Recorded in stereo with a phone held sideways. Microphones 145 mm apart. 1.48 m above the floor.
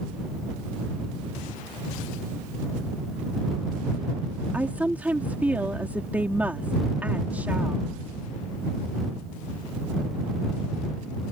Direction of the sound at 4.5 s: 10° right (ahead or behind).